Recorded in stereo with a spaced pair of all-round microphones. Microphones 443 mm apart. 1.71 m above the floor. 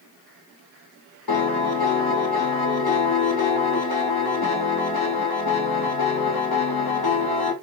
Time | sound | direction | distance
1.3 | a piano | 55° left (ahead or behind) | 0.8 m